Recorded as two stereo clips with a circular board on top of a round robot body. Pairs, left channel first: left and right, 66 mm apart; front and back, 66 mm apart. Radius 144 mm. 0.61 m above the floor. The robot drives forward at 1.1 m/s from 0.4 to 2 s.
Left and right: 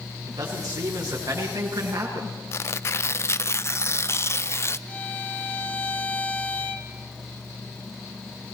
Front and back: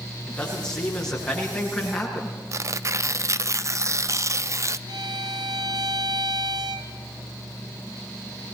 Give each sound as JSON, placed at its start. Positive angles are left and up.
{"t": 0.2, "sound": "a man speaking", "azimuth_deg": -75, "distance_m": 9.5}
{"t": 2.5, "sound": "tearing paper", "azimuth_deg": 140, "distance_m": 0.6}
{"t": 4.9, "sound": "a violin", "azimuth_deg": 160, "distance_m": 1.7}